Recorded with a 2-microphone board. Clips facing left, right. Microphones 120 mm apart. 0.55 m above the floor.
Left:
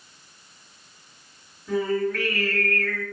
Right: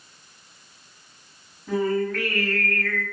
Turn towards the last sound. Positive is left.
turn(degrees=-45)  # may be behind; listen again after turning